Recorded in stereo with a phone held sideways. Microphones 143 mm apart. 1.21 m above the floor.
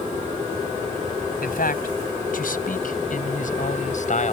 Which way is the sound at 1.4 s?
85° left.